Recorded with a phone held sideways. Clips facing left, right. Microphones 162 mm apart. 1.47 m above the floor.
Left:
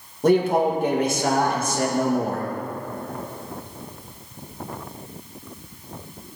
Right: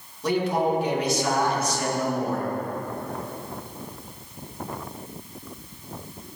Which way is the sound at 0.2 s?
50° left (ahead or behind).